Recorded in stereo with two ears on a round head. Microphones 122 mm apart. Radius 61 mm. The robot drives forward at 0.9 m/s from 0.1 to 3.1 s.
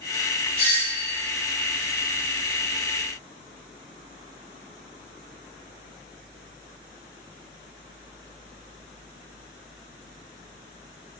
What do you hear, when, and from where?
0.6 s a doorbell: 50° left (ahead or behind), 4 m; by 1.2 s 45° left (ahead or behind), 4.5 m